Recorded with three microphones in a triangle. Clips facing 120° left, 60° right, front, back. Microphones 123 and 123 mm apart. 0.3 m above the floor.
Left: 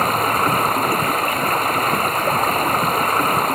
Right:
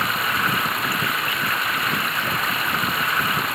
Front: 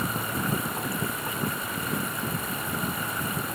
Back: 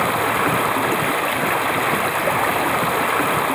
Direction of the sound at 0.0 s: 165° left.